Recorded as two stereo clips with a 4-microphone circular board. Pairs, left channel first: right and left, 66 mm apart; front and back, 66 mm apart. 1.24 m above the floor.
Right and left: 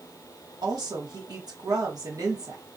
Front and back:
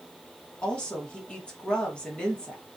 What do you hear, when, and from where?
0.6 s a woman speaking: 75° left, 1.7 m